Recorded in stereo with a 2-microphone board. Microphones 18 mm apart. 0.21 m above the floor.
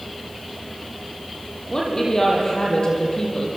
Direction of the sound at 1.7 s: 30° left (ahead or behind).